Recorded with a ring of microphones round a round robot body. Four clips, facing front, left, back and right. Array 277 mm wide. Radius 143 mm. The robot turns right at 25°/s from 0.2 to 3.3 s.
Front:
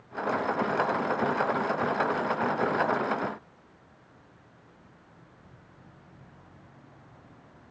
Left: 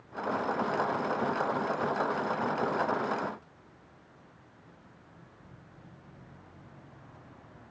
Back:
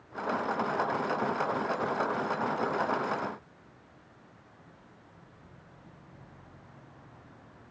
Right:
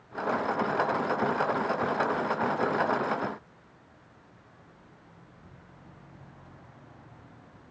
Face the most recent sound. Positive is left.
No sound to turn to.